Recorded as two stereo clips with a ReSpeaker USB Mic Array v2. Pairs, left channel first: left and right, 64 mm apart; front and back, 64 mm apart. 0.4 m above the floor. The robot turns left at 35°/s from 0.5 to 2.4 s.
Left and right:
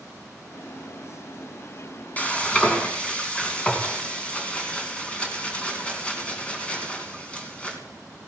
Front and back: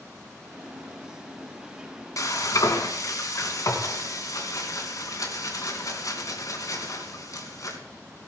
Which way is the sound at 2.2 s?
25° left.